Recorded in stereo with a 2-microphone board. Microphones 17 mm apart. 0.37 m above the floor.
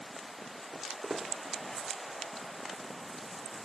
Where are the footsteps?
60° right (ahead or behind), 3.5 m.